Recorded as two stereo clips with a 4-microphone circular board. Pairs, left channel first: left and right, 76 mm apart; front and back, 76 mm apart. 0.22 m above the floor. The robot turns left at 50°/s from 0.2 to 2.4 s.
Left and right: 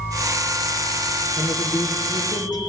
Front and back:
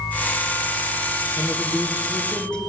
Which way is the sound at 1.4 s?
125° left.